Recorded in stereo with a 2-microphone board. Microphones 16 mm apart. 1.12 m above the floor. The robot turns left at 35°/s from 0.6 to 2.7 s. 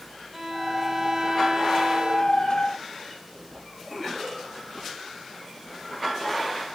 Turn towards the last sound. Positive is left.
turn(degrees=-80)